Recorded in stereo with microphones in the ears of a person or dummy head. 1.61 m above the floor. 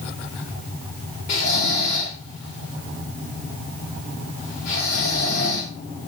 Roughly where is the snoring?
Left.